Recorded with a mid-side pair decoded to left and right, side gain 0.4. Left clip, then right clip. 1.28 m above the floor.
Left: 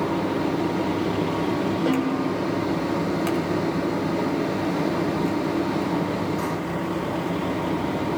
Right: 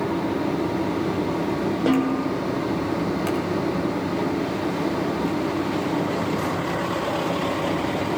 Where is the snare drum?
35° right, 1.2 m.